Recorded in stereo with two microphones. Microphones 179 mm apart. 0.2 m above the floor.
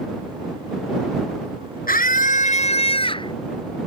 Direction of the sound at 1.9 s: 55° left (ahead or behind).